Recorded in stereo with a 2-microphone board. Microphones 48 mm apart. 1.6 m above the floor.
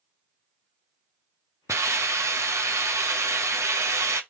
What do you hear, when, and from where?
1.7 s a hiss: 85° right, 0.8 m